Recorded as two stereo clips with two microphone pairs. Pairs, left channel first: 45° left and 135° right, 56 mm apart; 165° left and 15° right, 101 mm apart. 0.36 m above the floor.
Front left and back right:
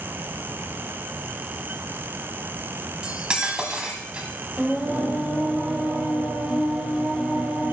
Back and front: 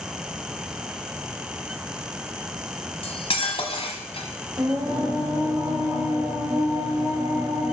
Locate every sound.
3.0 s cutlery clinking: 155° left, 1.3 m
4.6 s singing: 60° right, 2 m